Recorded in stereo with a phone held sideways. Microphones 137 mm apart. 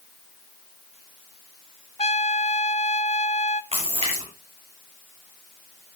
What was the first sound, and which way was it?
A trumpet, 50° left (ahead or behind).